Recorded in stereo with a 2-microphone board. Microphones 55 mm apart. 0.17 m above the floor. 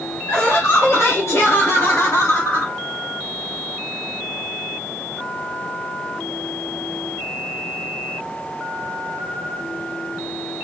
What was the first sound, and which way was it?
Laughter, 50° left (ahead or behind).